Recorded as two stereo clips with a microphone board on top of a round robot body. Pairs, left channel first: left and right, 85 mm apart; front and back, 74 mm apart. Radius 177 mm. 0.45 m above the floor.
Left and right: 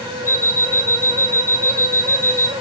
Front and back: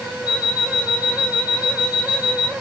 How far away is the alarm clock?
About 3.5 m.